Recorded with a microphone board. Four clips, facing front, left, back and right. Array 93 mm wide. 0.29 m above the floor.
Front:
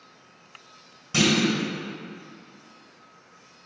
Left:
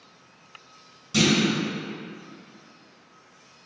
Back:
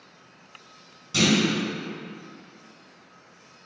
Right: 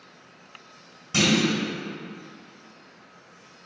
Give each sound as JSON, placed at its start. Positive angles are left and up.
{"t": 1.1, "sound": "a clunk", "azimuth_deg": -45, "distance_m": 1.5}